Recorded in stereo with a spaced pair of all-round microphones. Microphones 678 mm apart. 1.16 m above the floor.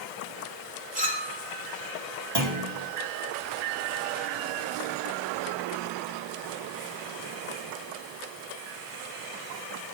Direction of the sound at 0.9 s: 10° right (ahead or behind).